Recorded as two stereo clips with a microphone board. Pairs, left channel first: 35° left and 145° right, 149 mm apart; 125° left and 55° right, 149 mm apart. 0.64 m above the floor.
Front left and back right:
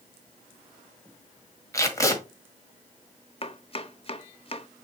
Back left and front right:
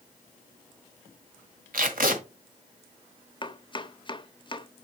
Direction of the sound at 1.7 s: 35° right.